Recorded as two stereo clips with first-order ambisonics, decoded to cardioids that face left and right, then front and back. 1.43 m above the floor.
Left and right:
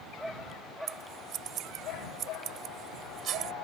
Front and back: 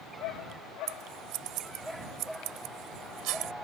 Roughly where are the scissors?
Behind right.